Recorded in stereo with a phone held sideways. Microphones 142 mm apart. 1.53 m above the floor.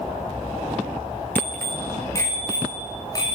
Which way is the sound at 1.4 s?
10° left (ahead or behind).